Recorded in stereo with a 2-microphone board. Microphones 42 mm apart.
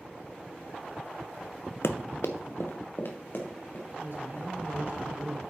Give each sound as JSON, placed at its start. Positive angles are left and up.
{"t": 1.8, "sound": "running footsteps", "side_deg": 70, "distance_m": 0.6}
{"t": 4.0, "sound": "a man speaking", "side_deg": -55, "distance_m": 2.5}